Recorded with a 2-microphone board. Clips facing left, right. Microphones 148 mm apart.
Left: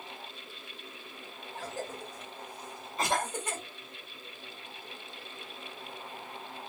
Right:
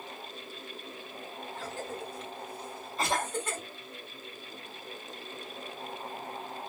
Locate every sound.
1.6 s a cough: 15° left (ahead or behind), 1.5 m
3.0 s a cough: centre (ahead or behind), 1.7 m